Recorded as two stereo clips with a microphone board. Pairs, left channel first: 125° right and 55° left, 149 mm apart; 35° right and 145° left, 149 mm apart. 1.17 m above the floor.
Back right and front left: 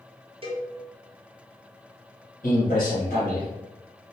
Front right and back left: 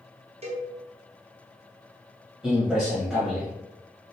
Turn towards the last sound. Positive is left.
turn(degrees=-135)